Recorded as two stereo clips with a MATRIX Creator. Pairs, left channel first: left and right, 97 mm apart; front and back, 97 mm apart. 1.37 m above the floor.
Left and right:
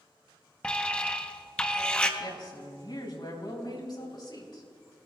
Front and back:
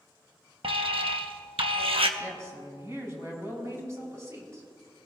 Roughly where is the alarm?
Behind.